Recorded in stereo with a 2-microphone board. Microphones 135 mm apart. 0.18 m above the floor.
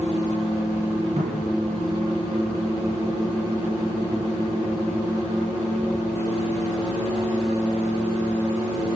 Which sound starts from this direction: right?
A cupboard door, at 1.2 s.